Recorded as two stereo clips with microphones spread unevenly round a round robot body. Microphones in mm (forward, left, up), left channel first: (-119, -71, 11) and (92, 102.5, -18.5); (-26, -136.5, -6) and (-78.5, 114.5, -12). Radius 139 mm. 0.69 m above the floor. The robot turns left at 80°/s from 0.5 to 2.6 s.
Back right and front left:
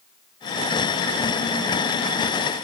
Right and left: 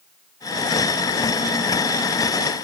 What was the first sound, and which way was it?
Only background noise.